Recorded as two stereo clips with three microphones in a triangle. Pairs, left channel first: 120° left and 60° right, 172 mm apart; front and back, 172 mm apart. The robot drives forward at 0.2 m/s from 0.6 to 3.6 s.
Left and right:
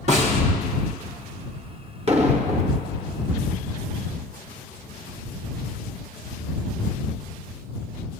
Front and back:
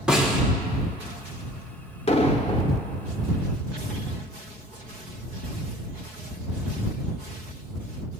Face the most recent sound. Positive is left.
turn(degrees=-50)